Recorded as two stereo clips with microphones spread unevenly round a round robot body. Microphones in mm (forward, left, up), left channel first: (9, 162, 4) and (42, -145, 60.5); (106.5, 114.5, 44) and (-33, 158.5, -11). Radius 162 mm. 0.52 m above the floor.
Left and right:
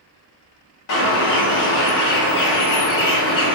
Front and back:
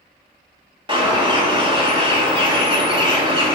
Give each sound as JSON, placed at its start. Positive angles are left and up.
{"t": 0.9, "sound": "a bird", "azimuth_deg": 115, "distance_m": 1.3}